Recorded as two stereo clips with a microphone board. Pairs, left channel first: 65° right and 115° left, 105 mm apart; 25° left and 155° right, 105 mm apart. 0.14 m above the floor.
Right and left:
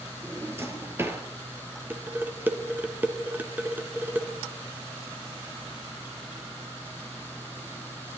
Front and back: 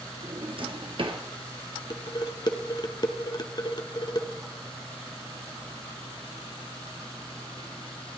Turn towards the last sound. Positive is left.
turn(degrees=45)